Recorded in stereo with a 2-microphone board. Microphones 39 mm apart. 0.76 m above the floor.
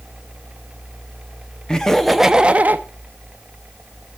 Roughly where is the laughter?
Centre.